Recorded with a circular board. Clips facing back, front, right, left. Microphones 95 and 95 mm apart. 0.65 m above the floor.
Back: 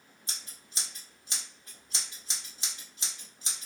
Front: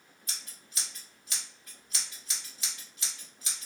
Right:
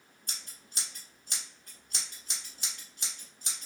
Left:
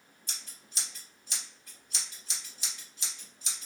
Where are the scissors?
120° right, 1.3 m.